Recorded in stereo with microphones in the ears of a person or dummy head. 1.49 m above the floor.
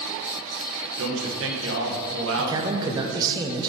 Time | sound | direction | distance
1.0 | a man speaking | 70° right (ahead or behind) | 1.6 m
2.4 | a man speaking | 20° right (ahead or behind) | 0.7 m